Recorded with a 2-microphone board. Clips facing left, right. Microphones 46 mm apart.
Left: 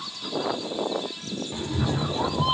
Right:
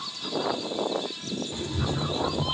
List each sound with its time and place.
1.5 s a cat meowing: 10° left (ahead or behind), 0.9 m; by 2.5 s 50° left (ahead or behind), 1.1 m